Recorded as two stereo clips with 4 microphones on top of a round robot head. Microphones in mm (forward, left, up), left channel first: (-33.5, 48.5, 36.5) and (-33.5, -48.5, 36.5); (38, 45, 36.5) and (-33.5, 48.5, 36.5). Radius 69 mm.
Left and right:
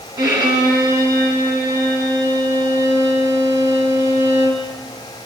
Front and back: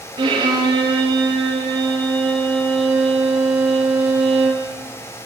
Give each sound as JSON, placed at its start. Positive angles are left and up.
{"t": 0.2, "sound": "a violin", "azimuth_deg": -140, "distance_m": 5.0}